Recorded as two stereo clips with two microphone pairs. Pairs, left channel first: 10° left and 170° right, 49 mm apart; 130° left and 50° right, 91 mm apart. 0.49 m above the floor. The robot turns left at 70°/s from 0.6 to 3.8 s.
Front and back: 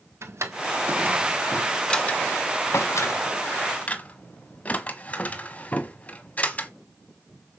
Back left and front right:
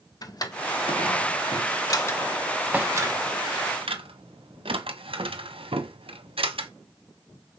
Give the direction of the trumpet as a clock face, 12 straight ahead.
No trumpet in this recording.